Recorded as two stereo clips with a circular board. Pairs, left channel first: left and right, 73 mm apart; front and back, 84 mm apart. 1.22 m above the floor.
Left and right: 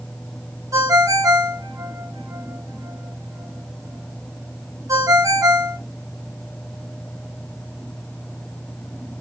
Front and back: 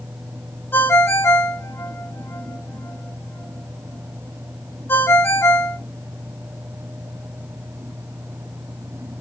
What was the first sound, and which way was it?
A ringtone, 60° right.